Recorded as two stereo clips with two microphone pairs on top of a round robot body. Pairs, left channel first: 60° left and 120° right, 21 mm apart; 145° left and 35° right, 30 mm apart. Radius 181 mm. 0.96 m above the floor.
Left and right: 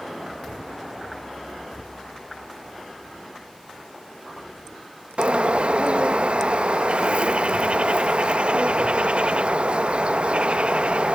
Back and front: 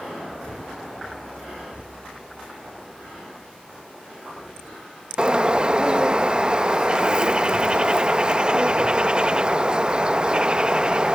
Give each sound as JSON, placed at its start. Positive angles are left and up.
{"t": 5.2, "sound": "a bird", "azimuth_deg": -95}